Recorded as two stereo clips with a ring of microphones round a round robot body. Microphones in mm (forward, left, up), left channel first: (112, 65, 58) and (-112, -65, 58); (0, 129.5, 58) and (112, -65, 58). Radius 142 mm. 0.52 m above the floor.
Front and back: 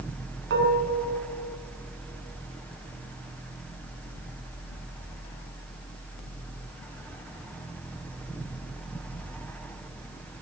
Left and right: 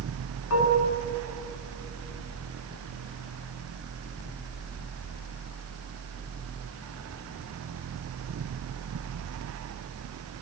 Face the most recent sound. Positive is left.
turn(degrees=160)